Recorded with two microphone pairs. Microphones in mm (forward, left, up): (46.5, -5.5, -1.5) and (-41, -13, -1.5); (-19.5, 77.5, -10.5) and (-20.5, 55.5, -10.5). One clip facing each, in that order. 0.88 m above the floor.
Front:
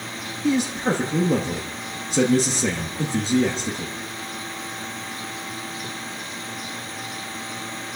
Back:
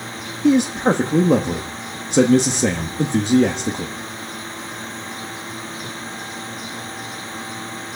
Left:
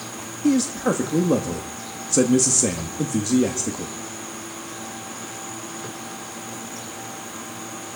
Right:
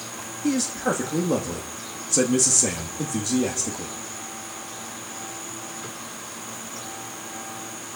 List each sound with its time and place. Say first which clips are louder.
0.4 s a man speaking: back 6 dB, left 4 dB; 165° left, 1.2 m